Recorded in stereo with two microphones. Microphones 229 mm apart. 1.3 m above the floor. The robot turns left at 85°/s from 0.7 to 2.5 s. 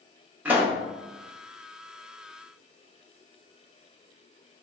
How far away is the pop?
About 0.8 m.